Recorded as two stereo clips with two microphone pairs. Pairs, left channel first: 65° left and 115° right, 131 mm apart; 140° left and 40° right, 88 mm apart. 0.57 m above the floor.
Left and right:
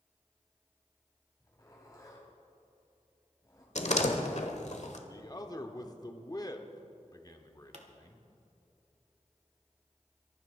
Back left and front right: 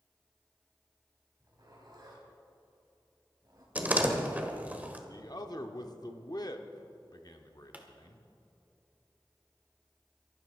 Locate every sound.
1.4 s a zipper: straight ahead, 3 m
3.8 s a door slam: 35° left, 1.3 m
5.1 s a man speaking: 120° left, 1.1 m
7.7 s a pop: 110° right, 1.5 m